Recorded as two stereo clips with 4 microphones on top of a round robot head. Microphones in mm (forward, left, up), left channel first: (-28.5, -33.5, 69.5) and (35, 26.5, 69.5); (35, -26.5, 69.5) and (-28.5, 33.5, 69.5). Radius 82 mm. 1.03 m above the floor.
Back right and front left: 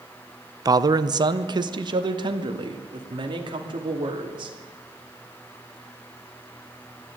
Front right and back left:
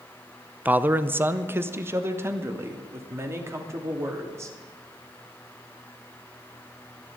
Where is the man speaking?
70° left, 0.7 m; by 4.6 s 75° left, 3.5 m.